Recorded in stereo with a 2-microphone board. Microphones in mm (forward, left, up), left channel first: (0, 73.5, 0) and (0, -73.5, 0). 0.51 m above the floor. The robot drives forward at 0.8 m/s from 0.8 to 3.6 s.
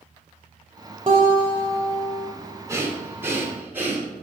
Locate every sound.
1.1 s a guitar: 35° right (ahead or behind), 2 m; by 2.3 s 25° right (ahead or behind), 3 m
2.7 s breathing: 20° right (ahead or behind), 1.3 m; by 4.1 s 15° right (ahead or behind), 1.9 m